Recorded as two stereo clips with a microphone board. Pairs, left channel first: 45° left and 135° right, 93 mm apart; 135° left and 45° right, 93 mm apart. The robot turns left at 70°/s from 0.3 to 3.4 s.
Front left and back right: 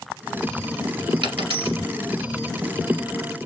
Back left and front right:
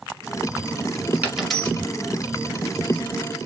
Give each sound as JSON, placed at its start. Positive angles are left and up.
{"t": 1.2, "sound": "a dropped coin", "azimuth_deg": -115, "distance_m": 1.5}